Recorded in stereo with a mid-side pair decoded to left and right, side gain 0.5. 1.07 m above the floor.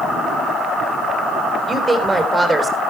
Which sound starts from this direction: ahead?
A woman speaking, at 1.7 s.